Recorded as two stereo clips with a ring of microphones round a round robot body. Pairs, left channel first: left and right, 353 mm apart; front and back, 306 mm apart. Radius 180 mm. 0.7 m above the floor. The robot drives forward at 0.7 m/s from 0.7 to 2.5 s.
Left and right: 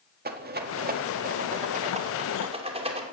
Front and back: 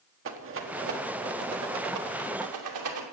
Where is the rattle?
145° right, 1.6 m; by 3.0 s 165° right, 2.5 m.